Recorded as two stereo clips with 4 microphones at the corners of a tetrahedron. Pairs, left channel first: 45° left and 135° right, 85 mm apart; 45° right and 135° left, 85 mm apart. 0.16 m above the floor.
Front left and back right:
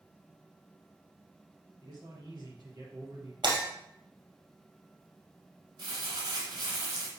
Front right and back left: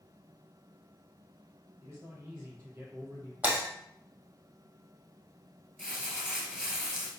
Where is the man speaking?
165° right, 3.5 m; by 3.3 s 175° right, 2.5 m.